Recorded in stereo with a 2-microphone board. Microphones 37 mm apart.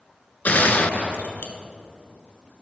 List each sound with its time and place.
0.5 s a gunshot: 50° left (ahead or behind), 0.7 m